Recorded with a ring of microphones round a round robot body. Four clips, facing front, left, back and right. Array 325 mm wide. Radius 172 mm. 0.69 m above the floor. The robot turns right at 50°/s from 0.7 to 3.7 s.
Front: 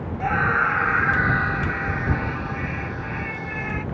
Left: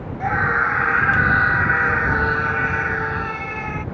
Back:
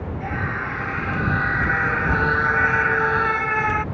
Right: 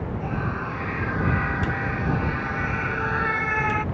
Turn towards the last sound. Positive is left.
turn(degrees=-155)